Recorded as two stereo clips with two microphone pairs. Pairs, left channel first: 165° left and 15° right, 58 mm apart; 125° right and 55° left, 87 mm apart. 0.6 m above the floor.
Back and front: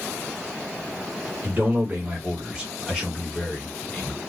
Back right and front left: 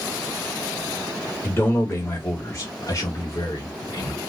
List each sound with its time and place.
1.4 s a man speaking: 65° right, 1.6 m; by 4.2 s 145° right, 1.8 m